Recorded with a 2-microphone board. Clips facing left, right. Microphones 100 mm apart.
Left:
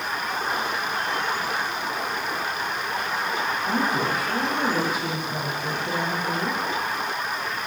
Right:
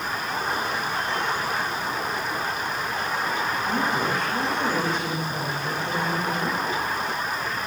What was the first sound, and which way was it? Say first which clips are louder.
A woman speaking: left 1 dB; 10° left (ahead or behind).